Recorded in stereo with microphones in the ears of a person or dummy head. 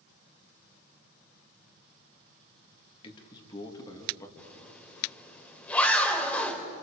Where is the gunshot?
I don't hear a gunshot.